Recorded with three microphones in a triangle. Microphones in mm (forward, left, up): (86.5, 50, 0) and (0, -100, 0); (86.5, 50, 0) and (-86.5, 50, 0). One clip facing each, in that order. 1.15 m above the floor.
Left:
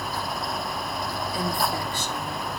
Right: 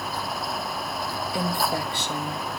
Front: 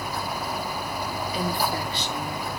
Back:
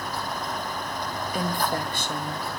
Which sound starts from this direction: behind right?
A woman speaking, at 1.3 s.